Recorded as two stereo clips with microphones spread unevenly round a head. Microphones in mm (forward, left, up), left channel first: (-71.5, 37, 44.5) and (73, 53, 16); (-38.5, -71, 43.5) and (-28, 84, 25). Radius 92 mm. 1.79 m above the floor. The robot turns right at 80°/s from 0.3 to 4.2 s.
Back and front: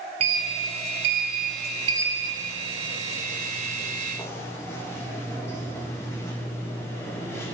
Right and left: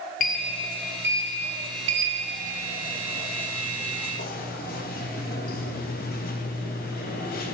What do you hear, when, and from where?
0.2 s a sliding door: 55° right, 0.8 m; by 7.5 s 105° right, 0.8 m